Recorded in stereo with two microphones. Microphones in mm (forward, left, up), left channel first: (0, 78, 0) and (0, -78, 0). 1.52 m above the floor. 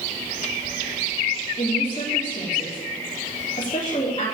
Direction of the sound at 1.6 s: 40° left (ahead or behind).